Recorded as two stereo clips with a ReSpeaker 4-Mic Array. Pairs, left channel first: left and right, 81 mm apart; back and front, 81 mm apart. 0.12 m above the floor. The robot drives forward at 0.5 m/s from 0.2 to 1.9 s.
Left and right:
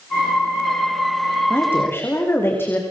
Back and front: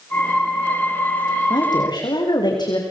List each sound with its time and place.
1.5 s a woman speaking: 150° left, 8 m; by 2.8 s 155° left, 8 m